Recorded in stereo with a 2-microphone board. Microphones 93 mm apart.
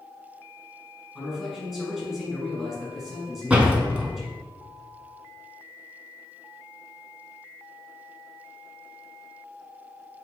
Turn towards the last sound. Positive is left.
turn(degrees=-15)  # may be behind; listen again after turning